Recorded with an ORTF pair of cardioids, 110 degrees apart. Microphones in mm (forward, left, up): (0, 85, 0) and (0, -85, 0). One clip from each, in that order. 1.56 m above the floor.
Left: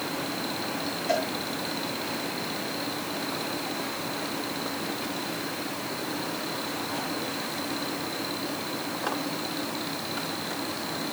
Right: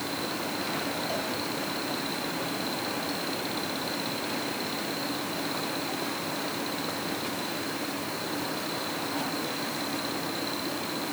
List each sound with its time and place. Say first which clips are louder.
1.1 s a cowbell: left 5 dB; 65° left, 7 m